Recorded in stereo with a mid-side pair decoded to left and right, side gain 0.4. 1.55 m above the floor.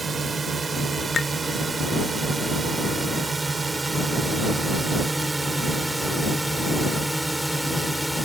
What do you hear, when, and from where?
0.0 s a drone: 45° right; by 8.3 s 10° right
1.1 s a clink: 30° left